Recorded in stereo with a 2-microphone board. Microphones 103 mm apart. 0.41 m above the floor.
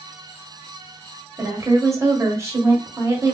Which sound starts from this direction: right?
A woman speaking, at 1.4 s.